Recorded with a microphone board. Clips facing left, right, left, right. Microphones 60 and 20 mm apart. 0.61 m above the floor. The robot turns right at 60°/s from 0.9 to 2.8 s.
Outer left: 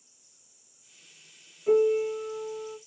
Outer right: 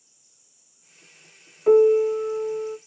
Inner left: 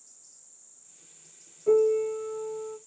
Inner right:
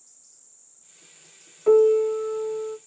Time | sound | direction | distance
1.7 | a piano | 95° right | 0.6 m